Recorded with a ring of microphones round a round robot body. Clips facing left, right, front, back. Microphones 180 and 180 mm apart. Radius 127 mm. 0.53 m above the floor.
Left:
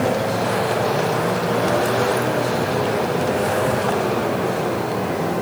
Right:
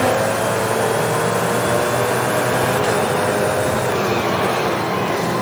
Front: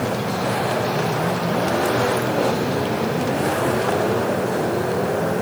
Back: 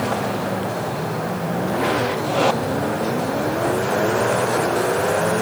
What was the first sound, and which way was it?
Only background noise.